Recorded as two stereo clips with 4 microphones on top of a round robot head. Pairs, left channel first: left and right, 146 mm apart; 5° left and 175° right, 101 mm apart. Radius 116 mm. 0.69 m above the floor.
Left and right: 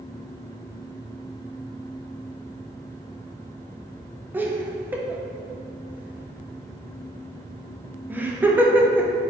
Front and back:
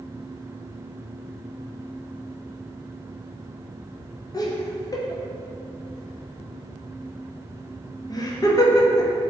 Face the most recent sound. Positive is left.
turn(degrees=-15)